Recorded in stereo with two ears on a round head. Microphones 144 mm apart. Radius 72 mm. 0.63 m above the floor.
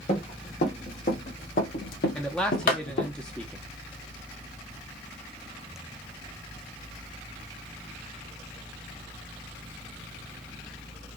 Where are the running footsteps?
45° left (ahead or behind), 2 m; by 3.1 s 65° left (ahead or behind), 1.3 m.